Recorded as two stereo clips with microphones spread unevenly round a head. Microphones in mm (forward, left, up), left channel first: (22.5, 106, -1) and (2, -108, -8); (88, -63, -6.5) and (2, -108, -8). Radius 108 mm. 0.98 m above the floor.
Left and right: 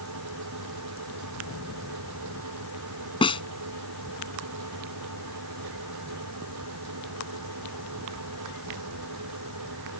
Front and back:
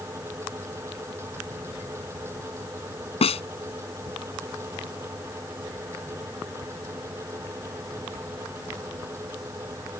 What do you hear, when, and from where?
0.0 s a fan: 90° right
3.2 s a snare drum: 20° left